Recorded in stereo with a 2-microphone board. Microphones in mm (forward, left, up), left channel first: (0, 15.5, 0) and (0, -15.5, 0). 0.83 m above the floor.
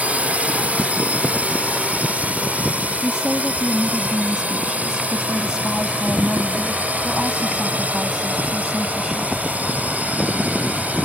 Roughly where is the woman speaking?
Right.